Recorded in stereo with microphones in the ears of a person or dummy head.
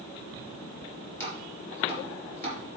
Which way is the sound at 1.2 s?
20° left (ahead or behind).